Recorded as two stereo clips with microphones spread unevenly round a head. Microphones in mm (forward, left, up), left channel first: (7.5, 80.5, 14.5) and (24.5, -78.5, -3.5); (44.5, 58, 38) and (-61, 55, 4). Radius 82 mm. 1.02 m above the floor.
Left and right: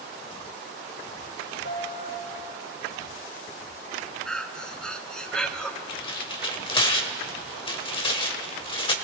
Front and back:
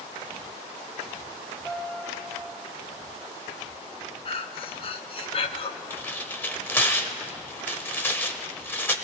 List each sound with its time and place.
1.6 s a piano: 80° left, 3.5 m
4.2 s breathing: 5° left, 0.6 m
5.9 s tearing paper: 50° left, 1.1 m